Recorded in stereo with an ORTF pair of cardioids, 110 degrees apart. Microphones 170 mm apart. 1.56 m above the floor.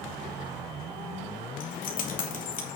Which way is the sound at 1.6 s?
50° left.